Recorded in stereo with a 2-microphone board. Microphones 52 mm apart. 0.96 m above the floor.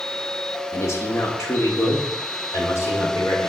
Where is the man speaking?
65° left (ahead or behind), 1.8 m; by 3.5 s 75° left (ahead or behind), 3 m.